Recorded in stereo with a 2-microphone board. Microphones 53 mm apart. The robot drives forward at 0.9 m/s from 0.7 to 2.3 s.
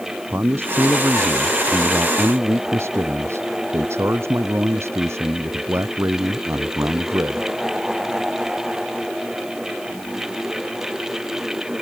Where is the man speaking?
45° right (ahead or behind); by 7.5 s 55° right (ahead or behind).